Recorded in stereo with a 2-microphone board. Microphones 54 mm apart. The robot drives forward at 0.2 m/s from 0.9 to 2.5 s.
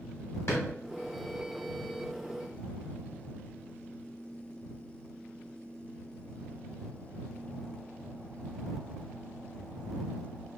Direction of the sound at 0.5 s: 55° left (ahead or behind).